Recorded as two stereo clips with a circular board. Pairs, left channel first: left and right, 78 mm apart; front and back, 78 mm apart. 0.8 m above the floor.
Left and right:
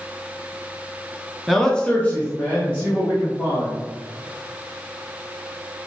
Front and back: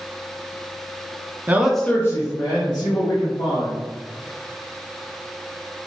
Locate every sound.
1.5 s a man speaking: straight behind, 0.6 m; by 3.7 s 20° left, 2 m